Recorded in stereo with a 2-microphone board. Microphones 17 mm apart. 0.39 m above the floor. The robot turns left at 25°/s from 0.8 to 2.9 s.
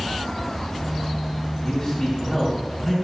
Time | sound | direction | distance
1.6 | a man speaking | 30° left | 2.5 m